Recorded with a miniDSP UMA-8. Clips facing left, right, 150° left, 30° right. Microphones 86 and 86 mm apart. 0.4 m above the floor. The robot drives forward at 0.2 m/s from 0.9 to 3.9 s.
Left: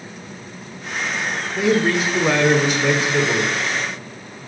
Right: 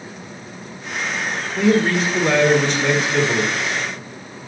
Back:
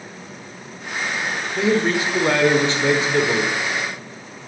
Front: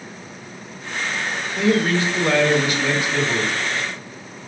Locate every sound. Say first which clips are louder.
1.6 s a man speaking: right 1 dB, even; 165° left, 0.9 m; by 3.5 s 175° left, 1.1 m